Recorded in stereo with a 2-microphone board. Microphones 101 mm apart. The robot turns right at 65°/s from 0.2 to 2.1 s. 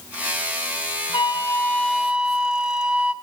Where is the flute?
125° left, 0.7 m; by 3.1 s 170° right, 0.7 m.